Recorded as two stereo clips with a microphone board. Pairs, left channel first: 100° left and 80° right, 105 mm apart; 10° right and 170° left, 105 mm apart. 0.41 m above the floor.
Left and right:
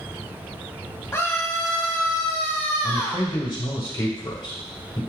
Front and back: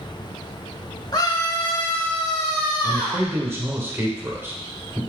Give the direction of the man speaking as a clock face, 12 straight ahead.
8 o'clock.